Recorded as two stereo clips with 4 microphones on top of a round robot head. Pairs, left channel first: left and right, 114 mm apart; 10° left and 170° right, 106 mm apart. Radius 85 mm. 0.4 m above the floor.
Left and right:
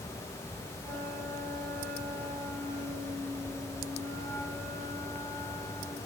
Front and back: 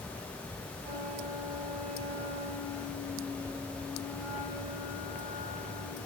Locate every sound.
0.8 s a flute: 155° right, 5 m